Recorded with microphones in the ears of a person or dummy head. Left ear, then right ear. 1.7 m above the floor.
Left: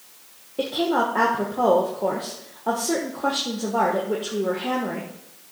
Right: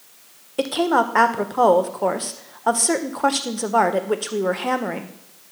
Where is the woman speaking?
35° right (ahead or behind), 0.6 m.